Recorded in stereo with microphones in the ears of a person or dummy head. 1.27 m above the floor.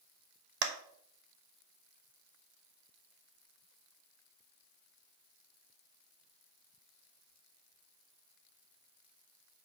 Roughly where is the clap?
Right.